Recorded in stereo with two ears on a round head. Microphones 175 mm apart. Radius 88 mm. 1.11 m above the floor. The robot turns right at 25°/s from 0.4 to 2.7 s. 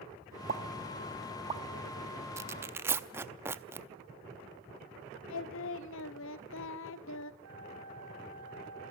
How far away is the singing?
About 0.9 m.